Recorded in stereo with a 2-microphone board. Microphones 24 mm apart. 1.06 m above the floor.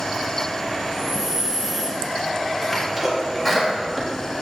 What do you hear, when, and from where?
0.9 s breathing: 10° right (ahead or behind), 0.9 m
2.7 s a sneeze: 5° left (ahead or behind), 1.8 m